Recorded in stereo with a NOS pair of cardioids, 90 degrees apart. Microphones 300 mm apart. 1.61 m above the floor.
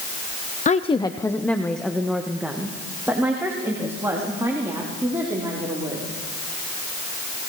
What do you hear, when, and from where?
0.7 s a woman speaking: 25° left, 0.8 m; by 6.1 s 10° right, 5.5 m